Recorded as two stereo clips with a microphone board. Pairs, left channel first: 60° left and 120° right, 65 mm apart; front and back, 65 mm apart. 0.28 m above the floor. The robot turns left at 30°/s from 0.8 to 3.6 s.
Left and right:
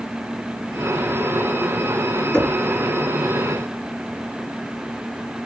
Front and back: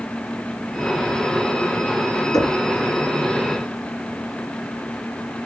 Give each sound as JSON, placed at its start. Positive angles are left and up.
{"t": 2.3, "sound": "knocking", "azimuth_deg": -15, "distance_m": 2.0}